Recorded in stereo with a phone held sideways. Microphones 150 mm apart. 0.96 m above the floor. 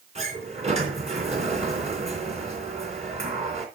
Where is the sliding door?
50° right (ahead or behind), 3 m.